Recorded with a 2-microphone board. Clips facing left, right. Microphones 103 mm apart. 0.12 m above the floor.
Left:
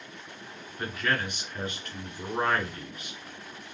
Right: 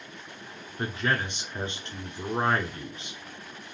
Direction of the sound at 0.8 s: 25° right (ahead or behind).